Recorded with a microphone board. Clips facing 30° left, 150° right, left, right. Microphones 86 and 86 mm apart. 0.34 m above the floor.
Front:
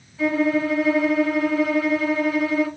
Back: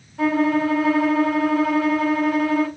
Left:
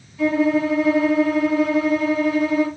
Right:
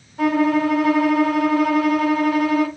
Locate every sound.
0.2 s a violin: 120° right, 1.1 m